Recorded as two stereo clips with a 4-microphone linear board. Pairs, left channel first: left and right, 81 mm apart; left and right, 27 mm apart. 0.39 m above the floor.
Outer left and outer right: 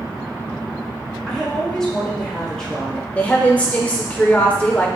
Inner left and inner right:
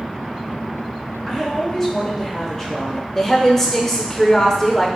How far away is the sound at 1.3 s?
About 1.6 m.